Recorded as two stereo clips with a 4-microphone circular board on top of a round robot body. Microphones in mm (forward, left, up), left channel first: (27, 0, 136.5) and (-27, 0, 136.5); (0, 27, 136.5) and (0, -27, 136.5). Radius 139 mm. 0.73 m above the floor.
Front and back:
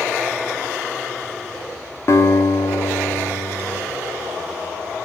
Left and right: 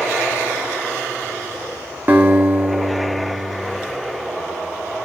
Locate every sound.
2.1 s a guitar: 35° right, 2.5 m